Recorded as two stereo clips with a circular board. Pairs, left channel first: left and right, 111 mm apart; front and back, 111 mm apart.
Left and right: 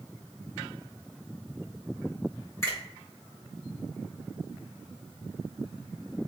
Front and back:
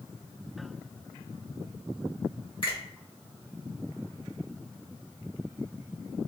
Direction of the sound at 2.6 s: 30° left.